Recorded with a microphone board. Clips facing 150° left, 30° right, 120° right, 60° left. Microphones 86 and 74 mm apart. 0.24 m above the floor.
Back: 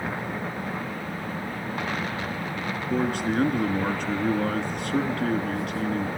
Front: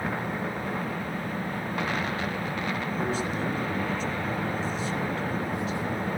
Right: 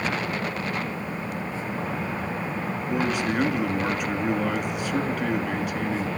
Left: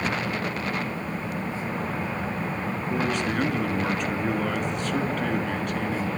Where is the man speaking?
155° left, 3.5 m.